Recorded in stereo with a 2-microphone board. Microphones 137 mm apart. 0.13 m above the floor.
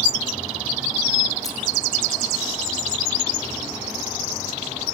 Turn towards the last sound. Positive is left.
turn(degrees=25)  # may be behind; listen again after turning